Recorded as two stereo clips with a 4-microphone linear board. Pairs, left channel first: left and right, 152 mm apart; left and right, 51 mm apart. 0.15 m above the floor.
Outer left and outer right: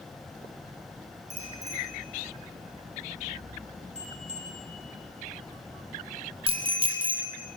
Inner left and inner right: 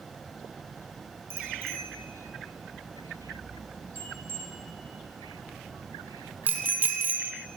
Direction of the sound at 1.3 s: 55° right (ahead or behind).